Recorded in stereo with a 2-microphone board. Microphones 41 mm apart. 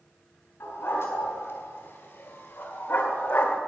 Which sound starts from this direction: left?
A dog barking, at 0.6 s.